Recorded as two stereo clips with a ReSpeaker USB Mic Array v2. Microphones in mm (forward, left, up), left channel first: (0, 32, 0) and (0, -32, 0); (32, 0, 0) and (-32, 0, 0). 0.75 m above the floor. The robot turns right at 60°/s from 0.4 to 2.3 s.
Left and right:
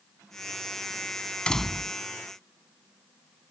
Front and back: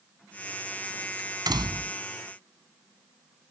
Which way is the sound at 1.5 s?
165° left.